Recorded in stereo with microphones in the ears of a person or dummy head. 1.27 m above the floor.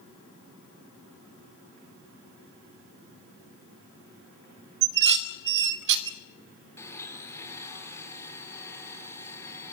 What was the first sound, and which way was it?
Dishes clattering, 60° right (ahead or behind).